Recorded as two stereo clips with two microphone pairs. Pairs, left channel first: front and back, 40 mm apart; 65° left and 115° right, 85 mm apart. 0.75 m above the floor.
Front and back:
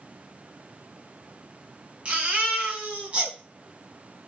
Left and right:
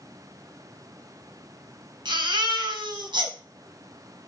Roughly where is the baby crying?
Behind right.